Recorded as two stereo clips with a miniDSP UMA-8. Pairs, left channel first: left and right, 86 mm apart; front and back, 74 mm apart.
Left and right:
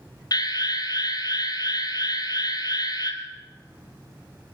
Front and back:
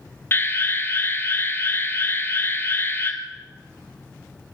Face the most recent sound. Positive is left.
turn(degrees=55)